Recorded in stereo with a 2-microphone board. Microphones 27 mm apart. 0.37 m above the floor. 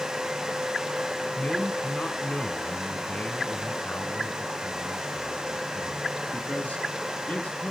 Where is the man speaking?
40° left (ahead or behind), 4 m; by 7.7 s 75° left (ahead or behind), 6 m.